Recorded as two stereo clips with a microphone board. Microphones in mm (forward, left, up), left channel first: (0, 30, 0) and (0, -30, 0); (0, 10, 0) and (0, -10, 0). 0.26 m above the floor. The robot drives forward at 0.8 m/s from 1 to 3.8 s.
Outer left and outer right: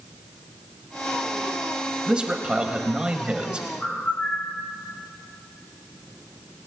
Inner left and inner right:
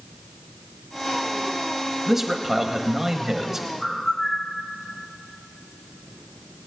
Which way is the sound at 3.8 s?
30° left (ahead or behind).